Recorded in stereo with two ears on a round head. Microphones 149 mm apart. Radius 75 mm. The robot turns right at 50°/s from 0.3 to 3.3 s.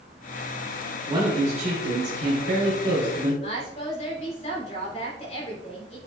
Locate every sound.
1.1 s a man speaking: 150° right, 3 m; by 3.3 s 40° right, 3 m
3.4 s a woman speaking: 40° left (ahead or behind), 3.5 m